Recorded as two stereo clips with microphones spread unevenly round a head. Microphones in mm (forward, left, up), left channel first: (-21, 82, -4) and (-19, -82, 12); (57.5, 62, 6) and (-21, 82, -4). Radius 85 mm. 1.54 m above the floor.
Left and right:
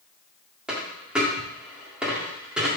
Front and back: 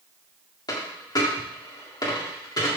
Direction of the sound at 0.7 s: 10° right.